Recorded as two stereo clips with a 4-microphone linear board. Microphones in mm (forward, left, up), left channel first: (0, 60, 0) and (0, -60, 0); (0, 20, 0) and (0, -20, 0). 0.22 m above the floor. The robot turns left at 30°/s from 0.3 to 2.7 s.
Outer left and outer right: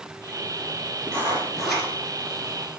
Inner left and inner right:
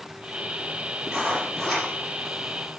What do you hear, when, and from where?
1.1 s writing: 20° right (ahead or behind), 3 m; by 1.9 s 5° left (ahead or behind), 3 m